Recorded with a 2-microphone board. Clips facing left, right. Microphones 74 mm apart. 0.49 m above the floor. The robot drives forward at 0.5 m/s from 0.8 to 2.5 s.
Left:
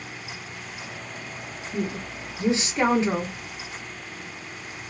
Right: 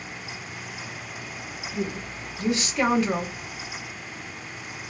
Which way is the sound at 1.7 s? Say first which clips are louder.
Left 1 dB; 25° left (ahead or behind).